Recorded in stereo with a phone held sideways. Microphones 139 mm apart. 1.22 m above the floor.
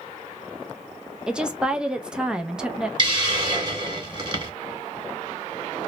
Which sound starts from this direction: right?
A hiss, at 3.0 s.